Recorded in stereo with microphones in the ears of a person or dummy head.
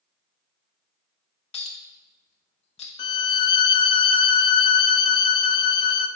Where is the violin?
25° left (ahead or behind), 0.5 m.